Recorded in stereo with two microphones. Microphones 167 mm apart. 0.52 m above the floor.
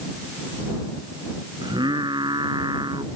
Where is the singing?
25° right (ahead or behind).